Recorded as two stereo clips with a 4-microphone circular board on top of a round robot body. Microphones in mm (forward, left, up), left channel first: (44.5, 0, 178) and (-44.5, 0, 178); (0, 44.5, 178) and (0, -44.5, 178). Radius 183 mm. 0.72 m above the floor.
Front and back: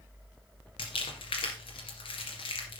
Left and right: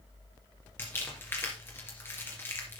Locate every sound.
0.8 s crumpling: 25° left, 2.5 m